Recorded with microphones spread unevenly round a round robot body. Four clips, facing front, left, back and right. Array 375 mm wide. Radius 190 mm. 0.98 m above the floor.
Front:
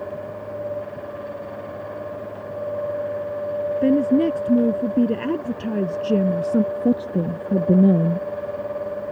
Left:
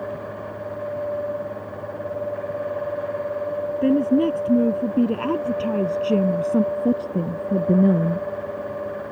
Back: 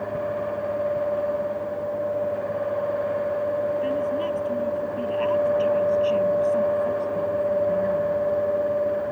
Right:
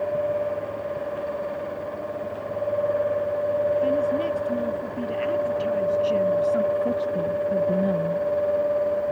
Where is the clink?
No clink in this recording.